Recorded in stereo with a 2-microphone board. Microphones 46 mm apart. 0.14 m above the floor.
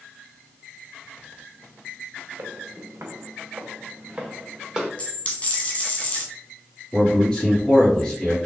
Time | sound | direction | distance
2.4 | footsteps | 75° right (ahead or behind) | 0.8 m
5.0 | a dropped coin | 35° left (ahead or behind) | 1.0 m
6.9 | a man speaking | 25° left (ahead or behind) | 1.4 m